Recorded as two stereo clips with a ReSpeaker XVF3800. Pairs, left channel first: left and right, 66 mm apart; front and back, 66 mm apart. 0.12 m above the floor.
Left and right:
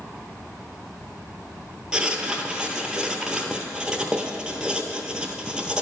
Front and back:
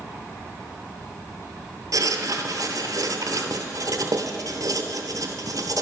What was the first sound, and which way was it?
Writing, 165° right.